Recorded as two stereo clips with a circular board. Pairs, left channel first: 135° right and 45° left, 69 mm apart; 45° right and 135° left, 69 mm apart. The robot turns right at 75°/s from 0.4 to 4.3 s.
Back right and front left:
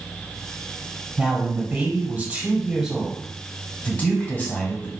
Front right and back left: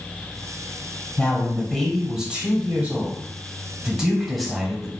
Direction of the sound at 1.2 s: 10° right.